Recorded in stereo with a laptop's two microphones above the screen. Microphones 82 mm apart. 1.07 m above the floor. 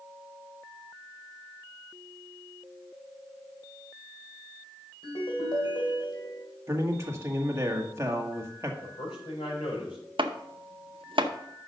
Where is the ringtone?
80° left, 2 m.